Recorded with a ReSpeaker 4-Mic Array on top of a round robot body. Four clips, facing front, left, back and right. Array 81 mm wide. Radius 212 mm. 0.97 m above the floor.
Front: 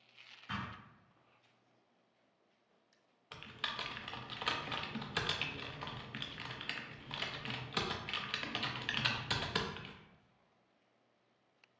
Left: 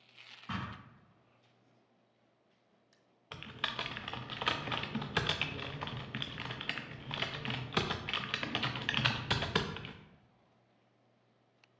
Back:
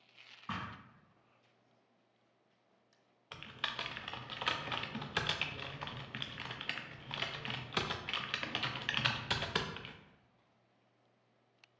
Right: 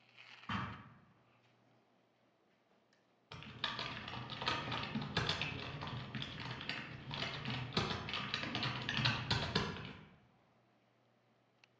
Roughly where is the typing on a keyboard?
Left.